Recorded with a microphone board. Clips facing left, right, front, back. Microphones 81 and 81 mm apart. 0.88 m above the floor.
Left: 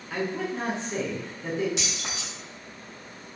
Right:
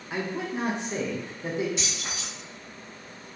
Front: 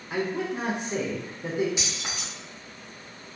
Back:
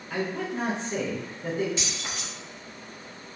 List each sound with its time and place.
0.1 s a man speaking: 45° right, 0.6 m
1.8 s keys jangling: 75° left, 0.9 m